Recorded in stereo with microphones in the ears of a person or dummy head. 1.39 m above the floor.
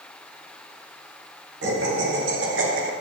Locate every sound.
1.6 s laughter: 65° right (ahead or behind), 1.3 m; by 2.9 s 55° right (ahead or behind), 0.6 m